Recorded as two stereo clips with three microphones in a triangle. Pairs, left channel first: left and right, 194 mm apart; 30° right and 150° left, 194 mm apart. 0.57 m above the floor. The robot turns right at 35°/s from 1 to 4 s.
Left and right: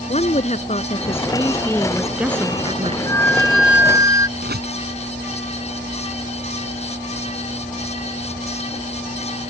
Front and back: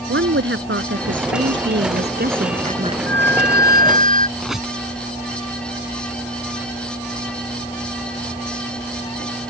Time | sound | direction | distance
0.1 | a woman speaking | 145° left | ?
3.1 | a flute | 165° left | ?
4.4 | a squeak | 120° right | ?